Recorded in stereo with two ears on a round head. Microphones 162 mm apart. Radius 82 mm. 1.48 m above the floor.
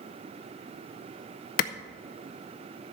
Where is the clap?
55° left (ahead or behind), 0.5 m.